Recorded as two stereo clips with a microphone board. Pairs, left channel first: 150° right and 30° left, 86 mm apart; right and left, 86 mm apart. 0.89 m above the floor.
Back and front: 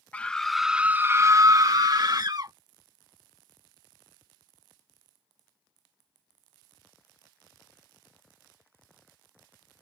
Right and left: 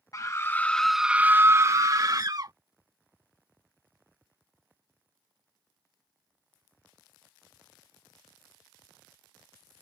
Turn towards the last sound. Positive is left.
turn(degrees=60)